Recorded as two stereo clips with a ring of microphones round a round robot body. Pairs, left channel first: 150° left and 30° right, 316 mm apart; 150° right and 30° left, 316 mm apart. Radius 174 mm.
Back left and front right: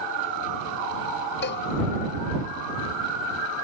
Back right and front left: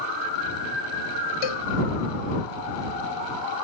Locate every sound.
1.4 s a cowbell: 150° right